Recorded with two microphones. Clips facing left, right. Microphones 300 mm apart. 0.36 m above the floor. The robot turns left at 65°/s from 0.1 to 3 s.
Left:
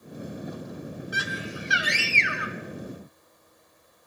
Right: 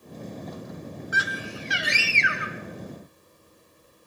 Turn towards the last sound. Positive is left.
turn(degrees=-70)